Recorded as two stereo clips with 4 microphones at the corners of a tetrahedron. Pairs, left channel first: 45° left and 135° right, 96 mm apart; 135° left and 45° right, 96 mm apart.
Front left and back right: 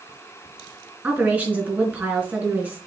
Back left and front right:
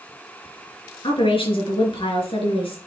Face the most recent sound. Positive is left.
turn(degrees=155)